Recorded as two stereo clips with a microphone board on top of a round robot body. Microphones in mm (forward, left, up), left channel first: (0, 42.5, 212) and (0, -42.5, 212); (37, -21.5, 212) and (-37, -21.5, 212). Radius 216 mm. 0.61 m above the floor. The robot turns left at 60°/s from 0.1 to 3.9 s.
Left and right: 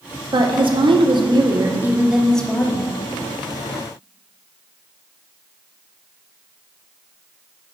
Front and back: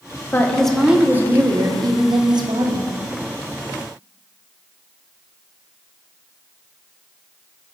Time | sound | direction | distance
0.3 | a woman speaking | 65° right | 1.5 m